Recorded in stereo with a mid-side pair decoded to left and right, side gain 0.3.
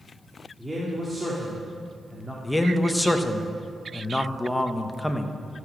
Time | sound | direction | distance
0.6 | a man speaking | 10° right | 2.5 m
2.4 | a man speaking | 15° left | 1.3 m